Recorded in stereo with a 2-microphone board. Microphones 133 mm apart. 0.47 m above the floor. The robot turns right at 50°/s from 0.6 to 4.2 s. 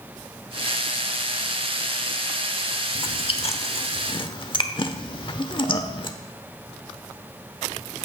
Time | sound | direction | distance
3.0 | chewing | 40° left (ahead or behind) | 1.0 m